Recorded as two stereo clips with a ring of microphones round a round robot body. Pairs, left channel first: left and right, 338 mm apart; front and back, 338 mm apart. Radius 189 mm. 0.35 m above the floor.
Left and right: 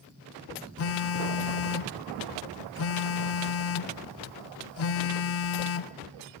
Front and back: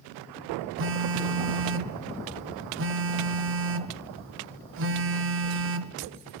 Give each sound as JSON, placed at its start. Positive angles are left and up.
{"t": 0.8, "sound": "a phone buzzing", "azimuth_deg": 135, "distance_m": 0.7}